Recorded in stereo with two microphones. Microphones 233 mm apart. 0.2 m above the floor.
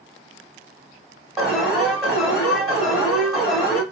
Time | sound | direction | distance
1.4 | an alarm | centre (ahead or behind) | 1.5 m